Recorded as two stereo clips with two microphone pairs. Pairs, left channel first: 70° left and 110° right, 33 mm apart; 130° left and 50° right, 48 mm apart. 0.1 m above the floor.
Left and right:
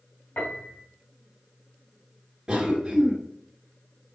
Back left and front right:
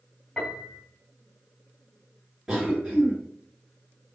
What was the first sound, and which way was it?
A piano, 55° left.